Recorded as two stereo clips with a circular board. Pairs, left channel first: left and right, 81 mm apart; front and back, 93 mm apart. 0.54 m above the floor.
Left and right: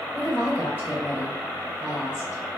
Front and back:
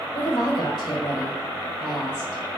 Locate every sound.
0.1 s a woman speaking: 30° left, 2.5 m